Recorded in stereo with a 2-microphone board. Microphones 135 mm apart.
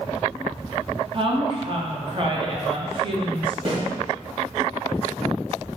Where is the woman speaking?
40° right (ahead or behind), 0.8 m.